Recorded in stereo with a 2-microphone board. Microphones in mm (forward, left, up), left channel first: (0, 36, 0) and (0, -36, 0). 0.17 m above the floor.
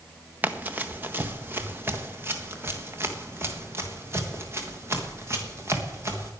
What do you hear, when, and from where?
0.4 s running footsteps: 25° right (ahead or behind), 1.5 m; by 6.3 s 40° right (ahead or behind), 4.5 m